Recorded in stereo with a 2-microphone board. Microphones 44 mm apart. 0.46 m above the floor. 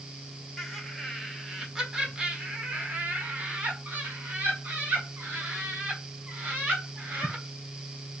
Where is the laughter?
5° left (ahead or behind), 1.7 m; by 7.4 s 55° right (ahead or behind), 3 m.